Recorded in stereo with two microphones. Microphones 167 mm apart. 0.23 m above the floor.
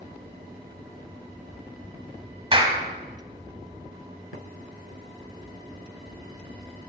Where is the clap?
30° right (ahead or behind), 1.1 m.